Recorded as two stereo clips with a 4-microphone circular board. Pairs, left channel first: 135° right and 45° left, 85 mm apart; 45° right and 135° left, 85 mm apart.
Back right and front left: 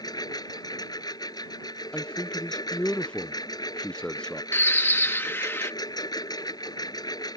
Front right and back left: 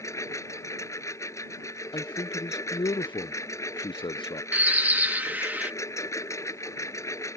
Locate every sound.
0.0 s a lawn mower: 100° right
1.9 s a man speaking: 55° right
4.5 s a bird: 175° right